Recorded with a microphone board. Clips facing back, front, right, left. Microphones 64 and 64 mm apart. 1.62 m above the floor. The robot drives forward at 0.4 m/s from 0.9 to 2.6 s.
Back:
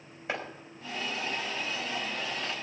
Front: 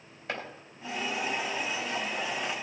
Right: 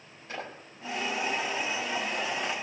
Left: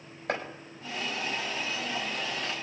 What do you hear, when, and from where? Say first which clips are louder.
0.3 s chopping: back 1 dB, left 6 dB; 105° left, 4.5 m